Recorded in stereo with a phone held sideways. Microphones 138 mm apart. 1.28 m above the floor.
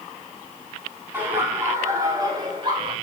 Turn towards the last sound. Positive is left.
turn(degrees=-40)  # may be behind; listen again after turning